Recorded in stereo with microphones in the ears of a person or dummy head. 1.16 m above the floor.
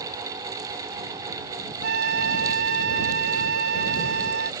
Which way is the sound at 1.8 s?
60° right (ahead or behind).